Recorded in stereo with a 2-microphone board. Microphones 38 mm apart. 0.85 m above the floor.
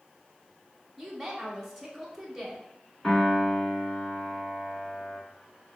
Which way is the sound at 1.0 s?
5° right (ahead or behind).